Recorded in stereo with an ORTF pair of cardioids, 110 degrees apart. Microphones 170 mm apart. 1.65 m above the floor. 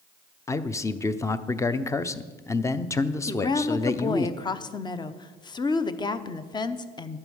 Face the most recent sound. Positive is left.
turn(degrees=25)